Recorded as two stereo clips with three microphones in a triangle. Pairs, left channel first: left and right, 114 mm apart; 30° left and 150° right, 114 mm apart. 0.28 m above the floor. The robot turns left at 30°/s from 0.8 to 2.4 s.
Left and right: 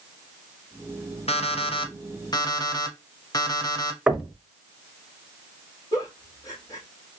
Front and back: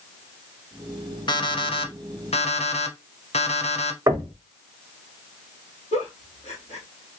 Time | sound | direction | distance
1.3 | an alarm clock | 75° left | 0.7 m
4.1 | knocking | 170° right | 0.8 m
5.9 | a giggle | 30° left | 1.6 m